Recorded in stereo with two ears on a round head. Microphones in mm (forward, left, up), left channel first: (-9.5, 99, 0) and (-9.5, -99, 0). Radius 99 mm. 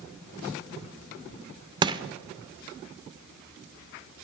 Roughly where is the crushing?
Centre.